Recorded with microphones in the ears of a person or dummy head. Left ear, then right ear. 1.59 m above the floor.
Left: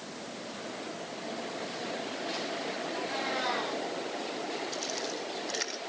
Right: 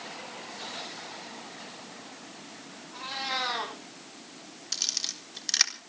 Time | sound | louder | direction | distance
2.9 | a cat meowing | right 4 dB | 75° right (ahead or behind) | 7 m
4.7 | a camera shutter | right 4 dB | 55° right (ahead or behind) | 3.5 m